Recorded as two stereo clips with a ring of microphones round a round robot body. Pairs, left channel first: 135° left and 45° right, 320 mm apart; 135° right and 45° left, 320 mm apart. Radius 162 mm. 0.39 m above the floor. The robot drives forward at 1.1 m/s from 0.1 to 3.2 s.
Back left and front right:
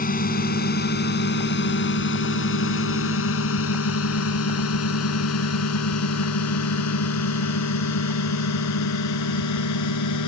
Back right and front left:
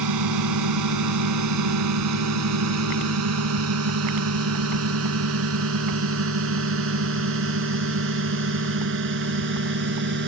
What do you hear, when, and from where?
0.0 s a drone: 70° left; by 10.3 s 100° left